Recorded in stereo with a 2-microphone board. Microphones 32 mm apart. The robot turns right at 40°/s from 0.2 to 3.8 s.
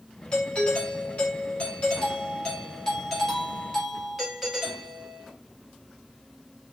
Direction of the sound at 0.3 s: 45° left.